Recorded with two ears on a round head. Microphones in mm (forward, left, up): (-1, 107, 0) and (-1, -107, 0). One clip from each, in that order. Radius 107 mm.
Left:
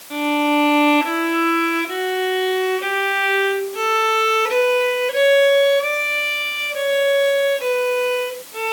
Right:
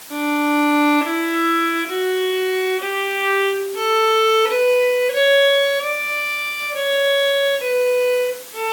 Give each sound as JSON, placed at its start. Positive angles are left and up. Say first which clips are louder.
{"t": 0.1, "sound": "a violin", "louder": "left 1 dB", "side_deg": 20, "distance_m": 2.0}